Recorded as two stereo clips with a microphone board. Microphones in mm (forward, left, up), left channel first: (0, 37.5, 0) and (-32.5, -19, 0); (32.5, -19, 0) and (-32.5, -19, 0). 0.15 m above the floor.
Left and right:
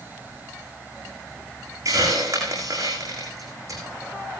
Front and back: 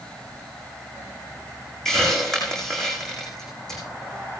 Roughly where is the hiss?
Right.